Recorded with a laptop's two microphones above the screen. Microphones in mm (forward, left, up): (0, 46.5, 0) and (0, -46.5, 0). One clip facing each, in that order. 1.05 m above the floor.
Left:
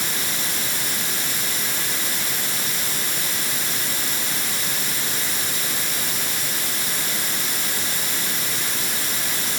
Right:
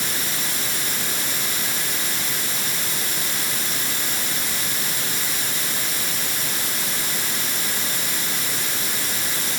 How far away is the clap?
I don't hear a clap.